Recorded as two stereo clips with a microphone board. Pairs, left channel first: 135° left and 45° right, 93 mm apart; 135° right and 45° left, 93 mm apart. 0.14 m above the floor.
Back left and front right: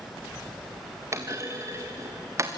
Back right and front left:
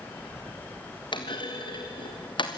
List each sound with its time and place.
1.1 s a clunk: 105° right, 3.5 m